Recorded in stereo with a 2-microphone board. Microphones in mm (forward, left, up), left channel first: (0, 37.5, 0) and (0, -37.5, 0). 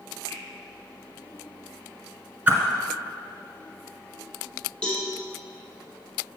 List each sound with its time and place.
0.3 s a finger snap: 35° left (ahead or behind), 2.5 m
2.5 s a whoosh: 20° right (ahead or behind), 1.3 m
4.8 s a cowbell: 15° left (ahead or behind), 2.5 m